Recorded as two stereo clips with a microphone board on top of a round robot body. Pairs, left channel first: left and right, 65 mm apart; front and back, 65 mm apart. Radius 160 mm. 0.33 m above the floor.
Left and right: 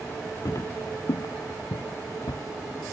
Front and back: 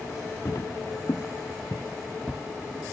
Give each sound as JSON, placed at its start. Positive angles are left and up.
{"t": 0.5, "sound": "footsteps", "azimuth_deg": 50}